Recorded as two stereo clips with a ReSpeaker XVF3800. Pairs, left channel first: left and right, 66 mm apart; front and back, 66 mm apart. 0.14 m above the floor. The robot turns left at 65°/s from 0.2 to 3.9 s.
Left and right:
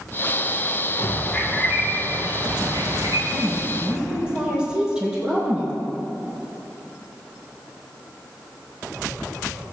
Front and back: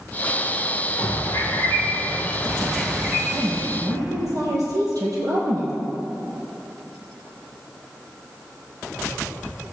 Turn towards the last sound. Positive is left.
turn(degrees=-165)